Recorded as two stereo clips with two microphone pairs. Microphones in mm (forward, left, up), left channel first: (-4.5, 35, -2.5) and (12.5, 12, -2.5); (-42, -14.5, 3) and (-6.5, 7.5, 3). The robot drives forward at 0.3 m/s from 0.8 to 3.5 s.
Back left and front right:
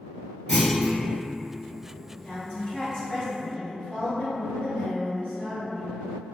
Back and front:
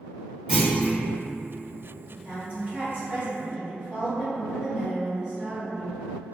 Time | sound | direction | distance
0.5 | a clunk | 65° left | 1.6 m
2.1 | a woman speaking | 70° left | 1.7 m